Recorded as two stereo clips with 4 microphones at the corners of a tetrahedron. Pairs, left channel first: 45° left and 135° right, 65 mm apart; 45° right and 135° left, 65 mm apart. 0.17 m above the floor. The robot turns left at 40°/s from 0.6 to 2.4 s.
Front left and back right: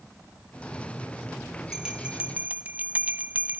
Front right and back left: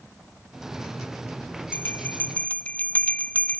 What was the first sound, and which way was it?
A bell, 60° right.